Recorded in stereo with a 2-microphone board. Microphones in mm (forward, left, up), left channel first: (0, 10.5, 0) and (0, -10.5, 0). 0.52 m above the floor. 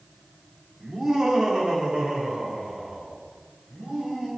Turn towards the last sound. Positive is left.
turn(degrees=-40)  # may be behind; listen again after turning